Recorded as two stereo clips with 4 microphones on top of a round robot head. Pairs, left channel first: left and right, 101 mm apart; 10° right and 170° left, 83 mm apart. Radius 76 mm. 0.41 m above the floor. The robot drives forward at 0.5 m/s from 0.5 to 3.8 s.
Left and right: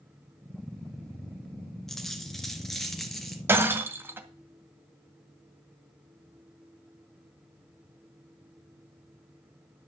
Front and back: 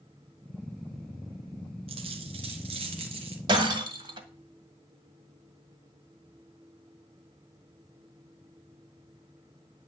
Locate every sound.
1.9 s a dropped coin: 175° left, 1.8 m; by 3.4 s straight behind, 2.5 m
3.5 s breaking glass: 155° right, 1.7 m; by 4.3 s 160° right, 1.9 m